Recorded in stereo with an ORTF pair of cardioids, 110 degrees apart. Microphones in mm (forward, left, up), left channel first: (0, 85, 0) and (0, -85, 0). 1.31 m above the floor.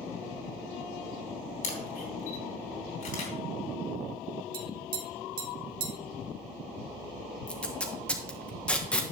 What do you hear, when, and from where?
1.6 s a camera shutter: 65° left, 3.5 m
4.5 s tapping: 60° right, 1.6 m
7.5 s tape being pulled: 5° left, 1.4 m